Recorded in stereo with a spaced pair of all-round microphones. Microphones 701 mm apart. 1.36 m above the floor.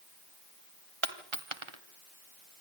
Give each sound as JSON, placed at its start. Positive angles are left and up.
{"t": 1.0, "sound": "a dropped coin", "side_deg": -40, "distance_m": 2.0}